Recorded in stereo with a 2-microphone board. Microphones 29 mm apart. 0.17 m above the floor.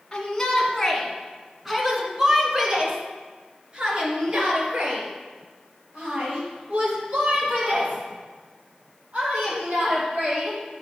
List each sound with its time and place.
0.1 s a shout: 20° left (ahead or behind), 1.8 m; by 10.6 s 55° right (ahead or behind), 6.5 m